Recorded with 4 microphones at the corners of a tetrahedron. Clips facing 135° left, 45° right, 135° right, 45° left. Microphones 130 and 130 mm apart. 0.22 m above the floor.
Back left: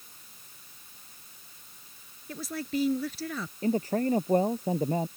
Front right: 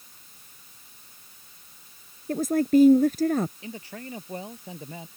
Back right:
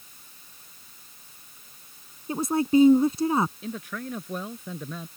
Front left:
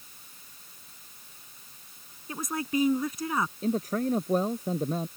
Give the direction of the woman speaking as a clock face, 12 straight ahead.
3 o'clock.